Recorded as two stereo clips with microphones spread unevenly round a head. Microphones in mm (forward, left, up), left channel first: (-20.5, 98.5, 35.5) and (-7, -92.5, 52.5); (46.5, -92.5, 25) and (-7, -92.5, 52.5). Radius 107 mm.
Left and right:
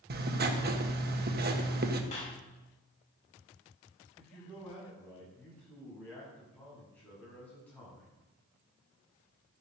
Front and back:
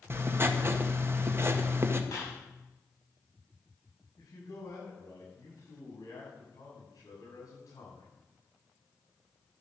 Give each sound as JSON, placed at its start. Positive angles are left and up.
{"t": 0.1, "sound": "writing", "azimuth_deg": -125, "distance_m": 1.5}
{"t": 2.1, "sound": "a clap", "azimuth_deg": 35, "distance_m": 5.5}
{"t": 4.2, "sound": "a man speaking", "azimuth_deg": 10, "distance_m": 7.5}